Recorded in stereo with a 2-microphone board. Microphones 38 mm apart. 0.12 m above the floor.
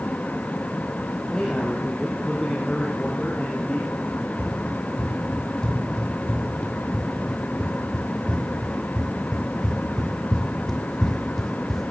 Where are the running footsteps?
25° left (ahead or behind), 8 m; by 11.9 s 5° left (ahead or behind), 2 m.